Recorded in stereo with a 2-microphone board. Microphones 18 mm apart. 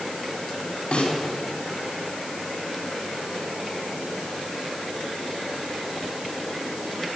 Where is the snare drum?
80° left, 5 m.